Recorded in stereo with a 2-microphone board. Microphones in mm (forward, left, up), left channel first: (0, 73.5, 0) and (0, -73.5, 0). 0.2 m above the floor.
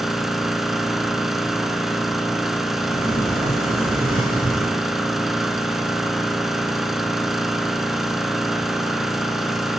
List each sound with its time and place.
0.0 s an engine running: centre (ahead or behind), 0.8 m
2.9 s a sliding door: 50° right (ahead or behind), 3 m